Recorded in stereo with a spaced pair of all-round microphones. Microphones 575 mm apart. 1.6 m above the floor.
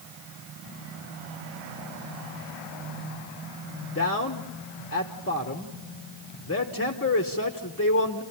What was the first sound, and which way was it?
A man speaking, 25° left (ahead or behind).